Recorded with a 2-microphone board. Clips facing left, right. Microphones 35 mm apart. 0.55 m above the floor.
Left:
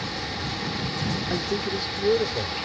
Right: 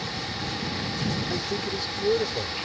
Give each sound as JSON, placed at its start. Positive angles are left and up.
{"t": 1.3, "sound": "a man speaking", "side_deg": 15}